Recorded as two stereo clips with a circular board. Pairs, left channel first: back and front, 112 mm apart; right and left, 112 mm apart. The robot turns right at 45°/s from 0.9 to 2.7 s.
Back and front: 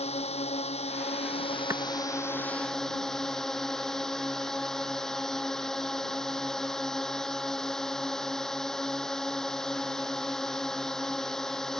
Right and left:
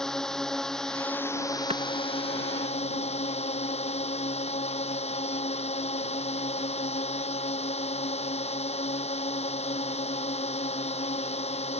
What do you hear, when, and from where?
0.0 s a drone: 175° right; by 11.8 s 95° right
1.7 s a clap: 60° left; by 1.8 s 65° left